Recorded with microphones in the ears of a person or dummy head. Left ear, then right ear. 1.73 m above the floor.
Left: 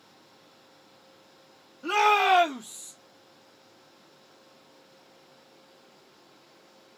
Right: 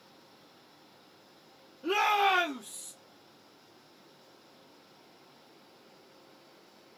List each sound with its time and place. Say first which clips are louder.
1.8 s a shout: left 5 dB; 70° left (ahead or behind), 1.1 m; by 2.9 s 10° left (ahead or behind), 0.8 m